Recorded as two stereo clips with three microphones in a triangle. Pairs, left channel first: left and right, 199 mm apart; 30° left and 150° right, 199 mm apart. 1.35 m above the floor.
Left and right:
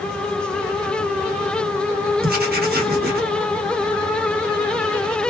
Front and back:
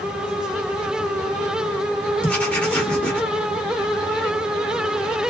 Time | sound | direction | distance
2.2 | writing | 55° right | 1.0 m